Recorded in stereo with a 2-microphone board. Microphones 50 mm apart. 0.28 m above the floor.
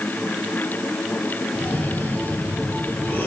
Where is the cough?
45° left (ahead or behind), 6 m.